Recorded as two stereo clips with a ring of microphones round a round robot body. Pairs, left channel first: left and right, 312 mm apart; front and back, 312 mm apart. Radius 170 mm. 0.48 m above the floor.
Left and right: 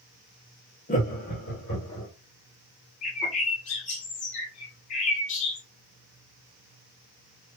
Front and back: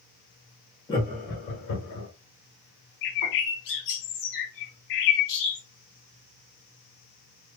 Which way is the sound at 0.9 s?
65° left.